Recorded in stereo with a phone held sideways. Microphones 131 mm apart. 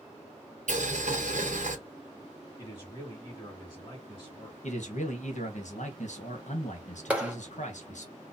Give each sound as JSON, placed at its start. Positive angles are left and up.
{"t": 0.7, "sound": "boiling", "side_deg": -70, "distance_m": 1.1}
{"t": 2.6, "sound": "a man speaking", "side_deg": 35, "distance_m": 2.5}
{"t": 4.6, "sound": "a man speaking", "side_deg": 65, "distance_m": 1.3}
{"t": 7.1, "sound": "a clap", "side_deg": -10, "distance_m": 1.1}